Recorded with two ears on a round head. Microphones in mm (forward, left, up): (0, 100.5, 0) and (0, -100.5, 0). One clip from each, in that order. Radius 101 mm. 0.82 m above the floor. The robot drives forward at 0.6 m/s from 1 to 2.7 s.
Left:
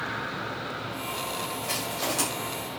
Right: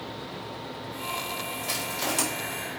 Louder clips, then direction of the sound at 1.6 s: Right 1 dB; 20° right (ahead or behind).